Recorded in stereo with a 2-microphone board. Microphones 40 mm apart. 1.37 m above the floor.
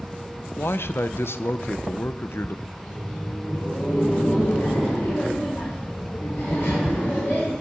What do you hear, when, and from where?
0.6 s a man speaking: 70° left (ahead or behind), 0.5 m
2.7 s laughter: 75° left (ahead or behind), 5.5 m